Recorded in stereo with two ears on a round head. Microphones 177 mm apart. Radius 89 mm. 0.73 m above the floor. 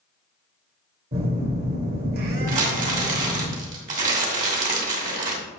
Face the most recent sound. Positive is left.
turn(degrees=-40)  # may be behind; listen again after turning